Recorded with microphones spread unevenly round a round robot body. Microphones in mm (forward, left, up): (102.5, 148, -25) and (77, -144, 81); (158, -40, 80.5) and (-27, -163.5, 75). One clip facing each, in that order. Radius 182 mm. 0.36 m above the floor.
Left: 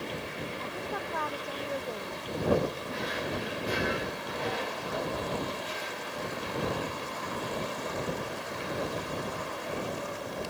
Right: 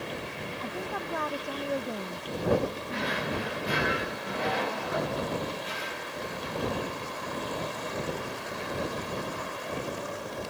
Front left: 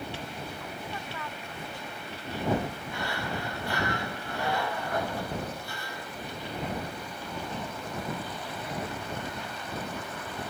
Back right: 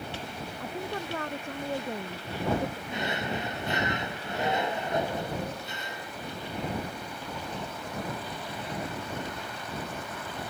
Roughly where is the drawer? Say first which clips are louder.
Right 2 dB, back right 2 dB; right.